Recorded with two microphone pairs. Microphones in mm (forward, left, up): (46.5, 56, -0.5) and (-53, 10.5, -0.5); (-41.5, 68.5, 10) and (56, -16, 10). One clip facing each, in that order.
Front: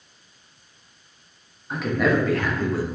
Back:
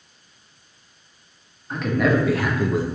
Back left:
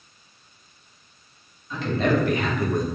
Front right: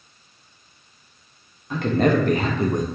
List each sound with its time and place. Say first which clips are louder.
1.7 s a man speaking: back 1 dB, front right 3 dB; 60° right, 1.0 m; by 2.9 s 105° right, 0.5 m